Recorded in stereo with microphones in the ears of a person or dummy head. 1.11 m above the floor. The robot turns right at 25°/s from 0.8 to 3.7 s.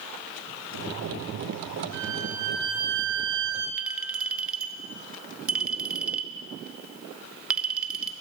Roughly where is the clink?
Centre.